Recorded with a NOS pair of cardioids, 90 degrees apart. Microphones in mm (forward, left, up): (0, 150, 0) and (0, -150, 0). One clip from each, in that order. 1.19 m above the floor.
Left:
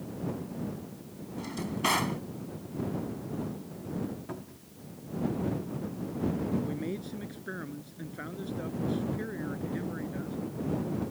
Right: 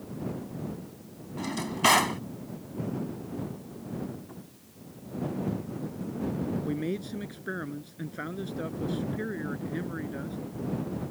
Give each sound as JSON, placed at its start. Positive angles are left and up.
{"t": 1.4, "sound": "a drawer", "azimuth_deg": -50}
{"t": 4.3, "sound": "a cupboard door", "azimuth_deg": 55}
{"t": 6.7, "sound": "a man speaking", "azimuth_deg": -35}